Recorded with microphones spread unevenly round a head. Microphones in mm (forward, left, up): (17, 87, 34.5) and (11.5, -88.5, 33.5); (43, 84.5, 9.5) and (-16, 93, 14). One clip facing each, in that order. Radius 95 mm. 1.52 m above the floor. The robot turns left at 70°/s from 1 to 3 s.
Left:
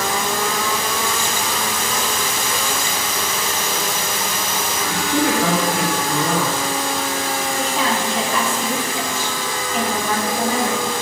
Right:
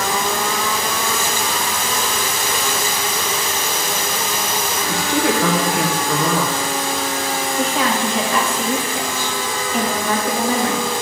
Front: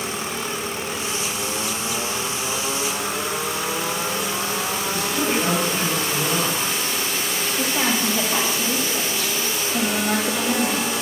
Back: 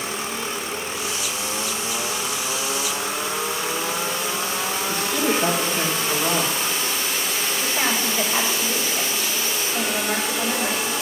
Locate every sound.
4.9 s a woman speaking: 115° right, 2 m
7.6 s a woman speaking: 60° right, 3 m